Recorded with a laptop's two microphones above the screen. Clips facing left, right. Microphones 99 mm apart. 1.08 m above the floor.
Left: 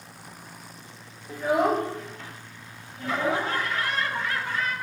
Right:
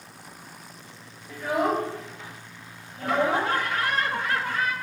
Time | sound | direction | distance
1.3 | a child speaking | 25° left (ahead or behind) | 2 m
3.0 | laughter | 55° right (ahead or behind) | 1.0 m